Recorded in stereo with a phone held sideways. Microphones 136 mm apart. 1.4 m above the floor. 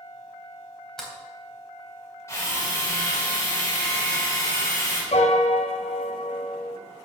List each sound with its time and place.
1.0 s a sliding door: 5° left (ahead or behind), 3.5 m
2.3 s a drill: 20° left (ahead or behind), 5.5 m
5.1 s a piano: 55° left (ahead or behind), 1.8 m